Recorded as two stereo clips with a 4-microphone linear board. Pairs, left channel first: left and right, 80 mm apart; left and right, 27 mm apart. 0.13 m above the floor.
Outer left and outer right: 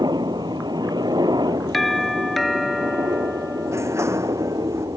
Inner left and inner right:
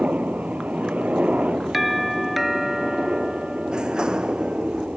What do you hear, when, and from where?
0.0 s a helicopter: 60° right (ahead or behind); by 5.0 s 50° right (ahead or behind)
1.7 s a doorbell: centre (ahead or behind)
3.7 s a sliding door: 35° right (ahead or behind)